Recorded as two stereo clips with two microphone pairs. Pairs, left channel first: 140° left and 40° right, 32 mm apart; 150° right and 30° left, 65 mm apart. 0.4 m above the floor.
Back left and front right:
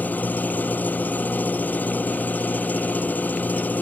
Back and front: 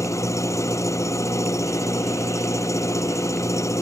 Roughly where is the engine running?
Behind.